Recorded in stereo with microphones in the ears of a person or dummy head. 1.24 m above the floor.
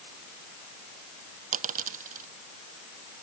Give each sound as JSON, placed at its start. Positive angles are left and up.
{"t": 1.5, "sound": "a dropped coin", "side_deg": -40}